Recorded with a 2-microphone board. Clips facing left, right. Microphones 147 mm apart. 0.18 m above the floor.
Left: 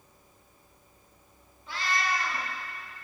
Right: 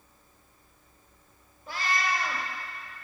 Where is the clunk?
I don't hear a clunk.